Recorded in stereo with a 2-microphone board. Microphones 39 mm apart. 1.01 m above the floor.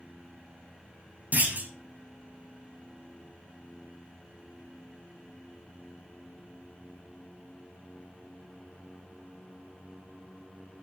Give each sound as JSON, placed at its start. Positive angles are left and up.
{"t": 1.3, "sound": "a clunk", "side_deg": -45, "distance_m": 1.1}